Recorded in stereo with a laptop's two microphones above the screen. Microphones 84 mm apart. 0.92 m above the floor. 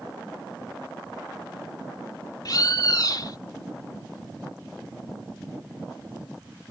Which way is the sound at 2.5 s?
50° left (ahead or behind).